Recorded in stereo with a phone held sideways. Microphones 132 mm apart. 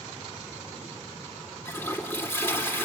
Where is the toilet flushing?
20° left (ahead or behind), 2 m.